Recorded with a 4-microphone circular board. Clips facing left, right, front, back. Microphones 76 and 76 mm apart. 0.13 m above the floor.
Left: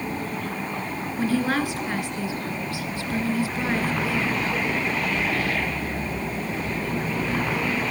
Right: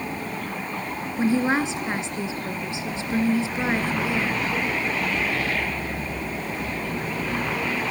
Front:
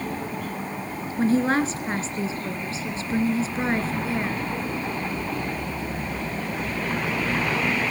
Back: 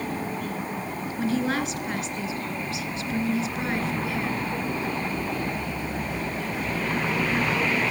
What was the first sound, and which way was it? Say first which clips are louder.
A woman speaking: right 2 dB, front 5 dB; 35° right.